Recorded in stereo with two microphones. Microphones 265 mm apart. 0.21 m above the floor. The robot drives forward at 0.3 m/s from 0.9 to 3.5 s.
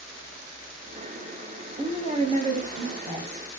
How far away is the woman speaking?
About 1.2 m.